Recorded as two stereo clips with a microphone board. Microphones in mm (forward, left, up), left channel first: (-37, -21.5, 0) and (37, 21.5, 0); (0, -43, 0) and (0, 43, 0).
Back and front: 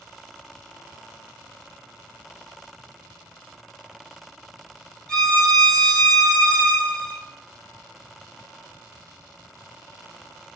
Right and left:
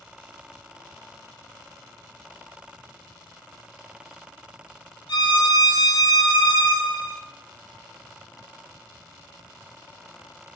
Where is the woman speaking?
I don't hear a woman speaking.